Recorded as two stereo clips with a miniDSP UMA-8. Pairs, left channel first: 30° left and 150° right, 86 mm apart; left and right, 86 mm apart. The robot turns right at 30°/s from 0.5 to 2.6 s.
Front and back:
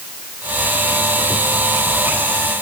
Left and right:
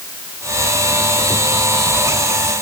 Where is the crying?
No crying in this recording.